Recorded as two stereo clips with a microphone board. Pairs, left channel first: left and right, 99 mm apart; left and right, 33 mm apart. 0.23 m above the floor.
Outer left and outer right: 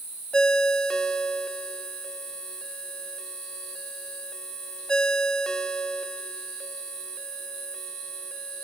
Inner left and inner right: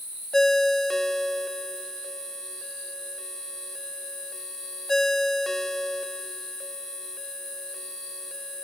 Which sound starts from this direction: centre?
A ringtone, at 0.3 s.